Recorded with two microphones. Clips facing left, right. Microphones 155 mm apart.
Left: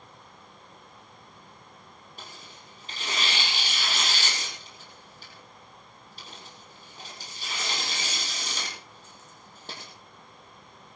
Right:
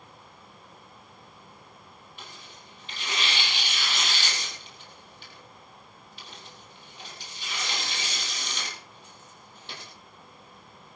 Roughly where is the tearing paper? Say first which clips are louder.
Left 1 dB; left.